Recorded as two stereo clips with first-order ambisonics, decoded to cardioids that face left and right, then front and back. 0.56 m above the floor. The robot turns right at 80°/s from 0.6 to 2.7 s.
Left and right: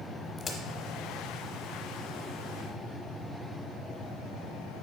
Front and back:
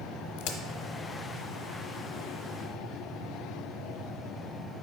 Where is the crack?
20° left, 1.0 m.